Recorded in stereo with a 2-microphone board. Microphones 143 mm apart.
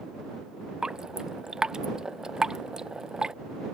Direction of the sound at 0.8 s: 5° right (ahead or behind).